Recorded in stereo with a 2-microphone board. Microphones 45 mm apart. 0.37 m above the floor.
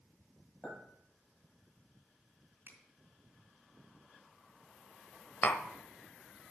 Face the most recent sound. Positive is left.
turn(degrees=45)  # may be behind; listen again after turning